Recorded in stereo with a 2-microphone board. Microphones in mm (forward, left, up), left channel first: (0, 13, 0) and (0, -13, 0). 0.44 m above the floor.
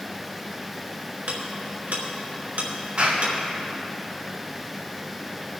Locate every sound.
1.3 s ticking: 75° right (ahead or behind), 3 m
3.0 s a clap: 50° right (ahead or behind), 3.5 m